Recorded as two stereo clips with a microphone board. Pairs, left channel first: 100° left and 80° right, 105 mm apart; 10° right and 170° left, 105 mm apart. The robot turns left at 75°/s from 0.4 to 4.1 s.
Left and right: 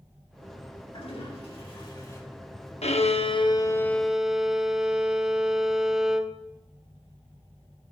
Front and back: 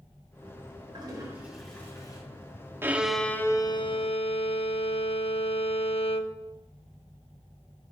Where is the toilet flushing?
130° left, 6 m; by 2.2 s 35° left, 6 m.